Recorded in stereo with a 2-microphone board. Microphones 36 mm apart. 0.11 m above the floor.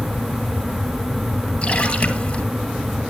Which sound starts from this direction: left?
A splash, at 1.6 s.